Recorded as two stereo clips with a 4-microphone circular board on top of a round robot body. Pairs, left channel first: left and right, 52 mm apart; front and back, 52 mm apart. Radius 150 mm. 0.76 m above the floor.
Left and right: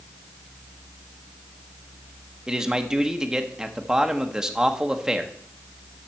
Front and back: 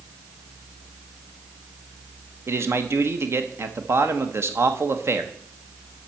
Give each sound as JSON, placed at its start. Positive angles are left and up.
{"t": 2.5, "sound": "a man speaking", "azimuth_deg": -165, "distance_m": 1.2}